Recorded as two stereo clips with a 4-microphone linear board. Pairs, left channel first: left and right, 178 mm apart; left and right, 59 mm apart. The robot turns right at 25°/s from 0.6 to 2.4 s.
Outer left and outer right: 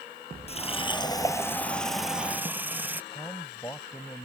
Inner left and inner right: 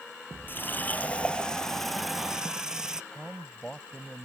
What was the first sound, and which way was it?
A running tap, 145° left.